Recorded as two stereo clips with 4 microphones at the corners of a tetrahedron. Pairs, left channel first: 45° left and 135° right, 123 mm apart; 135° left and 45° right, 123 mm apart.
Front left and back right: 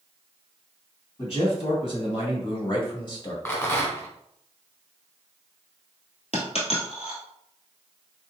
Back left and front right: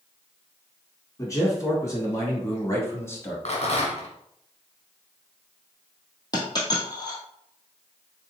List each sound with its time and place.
1.2 s a man speaking: 75° left, 2.5 m
3.5 s a rattle: 110° left, 1.7 m
6.3 s a dropped coin: 80° left, 1.6 m